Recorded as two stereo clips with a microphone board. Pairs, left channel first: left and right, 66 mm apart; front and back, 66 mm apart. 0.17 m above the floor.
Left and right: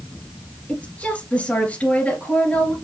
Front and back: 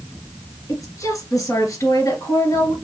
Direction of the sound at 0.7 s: 25° left.